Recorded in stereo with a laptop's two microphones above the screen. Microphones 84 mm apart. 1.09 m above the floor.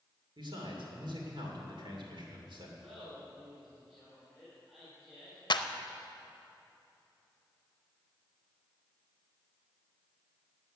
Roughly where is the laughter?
Centre.